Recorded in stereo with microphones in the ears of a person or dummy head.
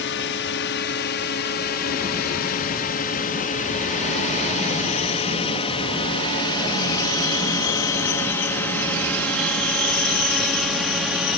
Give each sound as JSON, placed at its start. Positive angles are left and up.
{"t": 0.0, "sound": "a drone", "side_deg": 60}